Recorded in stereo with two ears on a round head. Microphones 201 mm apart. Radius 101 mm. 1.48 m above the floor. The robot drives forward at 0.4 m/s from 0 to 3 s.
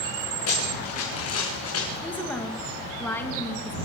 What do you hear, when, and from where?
0.5 s running footsteps: 75° left (ahead or behind), 7.5 m
2.0 s a woman speaking: 10° left (ahead or behind), 2.5 m